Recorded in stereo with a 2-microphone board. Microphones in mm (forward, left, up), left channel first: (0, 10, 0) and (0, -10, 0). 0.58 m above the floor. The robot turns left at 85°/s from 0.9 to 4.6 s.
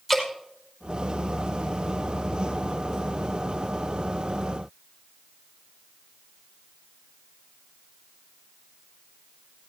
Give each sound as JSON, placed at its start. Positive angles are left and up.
{"t": 0.1, "sound": "dripping", "side_deg": 0, "distance_m": 5.0}